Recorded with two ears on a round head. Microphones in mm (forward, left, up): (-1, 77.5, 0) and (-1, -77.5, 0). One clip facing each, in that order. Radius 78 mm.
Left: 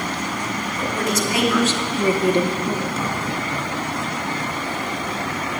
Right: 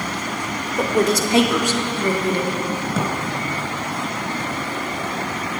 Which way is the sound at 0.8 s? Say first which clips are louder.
Right 6 dB; 35° right (ahead or behind).